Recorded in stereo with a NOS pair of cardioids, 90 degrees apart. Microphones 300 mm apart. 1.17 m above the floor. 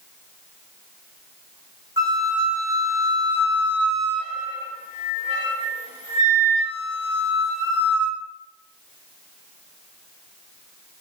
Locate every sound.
2.0 s a flute: 35° left, 1.4 m